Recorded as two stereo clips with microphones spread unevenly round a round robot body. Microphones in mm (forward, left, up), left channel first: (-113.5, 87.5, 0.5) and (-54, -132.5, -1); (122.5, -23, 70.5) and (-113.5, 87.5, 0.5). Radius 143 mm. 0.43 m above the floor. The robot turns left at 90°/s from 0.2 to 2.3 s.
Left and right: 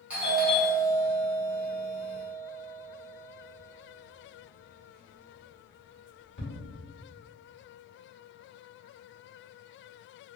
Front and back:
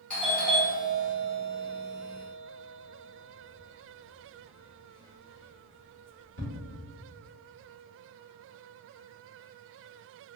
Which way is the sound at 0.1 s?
145° right.